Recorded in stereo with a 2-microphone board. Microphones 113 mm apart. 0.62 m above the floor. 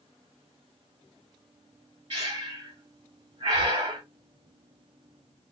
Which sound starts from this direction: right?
Breathing, at 2.1 s.